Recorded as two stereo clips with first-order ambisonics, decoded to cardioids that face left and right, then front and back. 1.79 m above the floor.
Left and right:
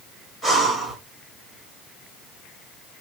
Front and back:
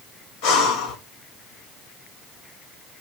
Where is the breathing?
10° left, 1.5 m.